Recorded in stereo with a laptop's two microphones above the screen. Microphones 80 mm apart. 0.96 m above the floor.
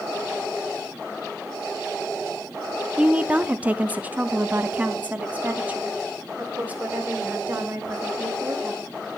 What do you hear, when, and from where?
3.0 s a woman speaking: 15° right (ahead or behind), 0.6 m; by 8.9 s 20° right (ahead or behind), 5 m